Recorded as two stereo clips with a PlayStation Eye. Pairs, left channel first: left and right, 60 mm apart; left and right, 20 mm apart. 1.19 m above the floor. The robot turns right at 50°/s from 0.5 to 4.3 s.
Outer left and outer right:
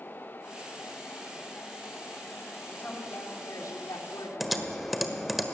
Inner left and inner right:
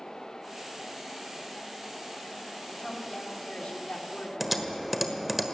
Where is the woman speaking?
20° left, 3 m; by 5.3 s 100° left, 3 m.